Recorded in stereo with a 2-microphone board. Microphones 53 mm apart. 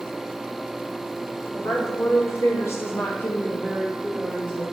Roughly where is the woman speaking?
Left.